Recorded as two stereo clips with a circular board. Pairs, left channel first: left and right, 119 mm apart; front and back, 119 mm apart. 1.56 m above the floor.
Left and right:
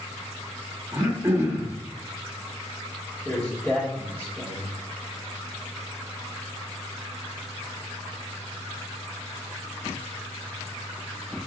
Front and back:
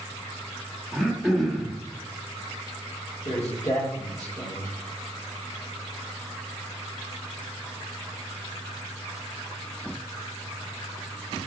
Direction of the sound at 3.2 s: 15° left.